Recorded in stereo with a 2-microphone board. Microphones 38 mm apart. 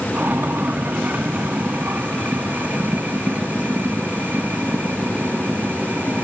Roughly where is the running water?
Right.